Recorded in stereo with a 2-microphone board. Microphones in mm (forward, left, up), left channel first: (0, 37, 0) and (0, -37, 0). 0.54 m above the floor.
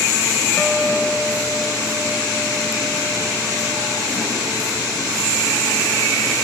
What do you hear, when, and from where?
0.6 s a guitar: 10° left (ahead or behind)